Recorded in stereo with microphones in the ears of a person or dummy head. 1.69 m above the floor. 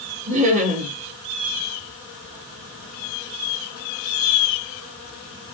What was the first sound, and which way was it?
Laughter, 40° right (ahead or behind).